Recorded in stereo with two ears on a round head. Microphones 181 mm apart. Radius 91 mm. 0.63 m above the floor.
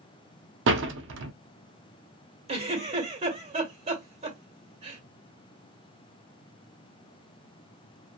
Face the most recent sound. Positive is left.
turn(degrees=-30)  # may be behind; listen again after turning